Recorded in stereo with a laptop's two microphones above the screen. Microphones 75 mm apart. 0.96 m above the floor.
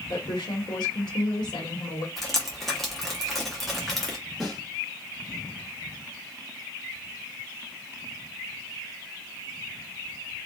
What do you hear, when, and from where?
0.1 s a woman speaking: 65° left (ahead or behind), 1.3 m
2.2 s dripping: 5° left (ahead or behind), 0.7 m
4.4 s a snare drum: centre (ahead or behind), 1.0 m